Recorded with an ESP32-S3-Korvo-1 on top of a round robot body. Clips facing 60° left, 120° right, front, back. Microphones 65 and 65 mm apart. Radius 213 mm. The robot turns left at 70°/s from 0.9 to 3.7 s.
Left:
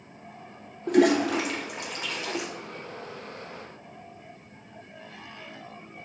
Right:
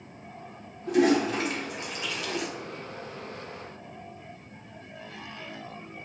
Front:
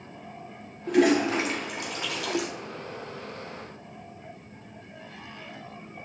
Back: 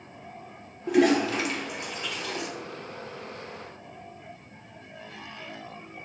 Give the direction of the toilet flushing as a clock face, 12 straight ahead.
9 o'clock.